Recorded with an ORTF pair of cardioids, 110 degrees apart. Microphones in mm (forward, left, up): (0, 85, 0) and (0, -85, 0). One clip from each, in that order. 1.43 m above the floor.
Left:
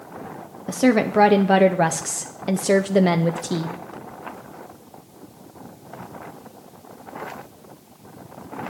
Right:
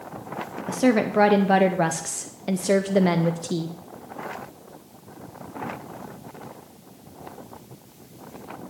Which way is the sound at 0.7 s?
10° left.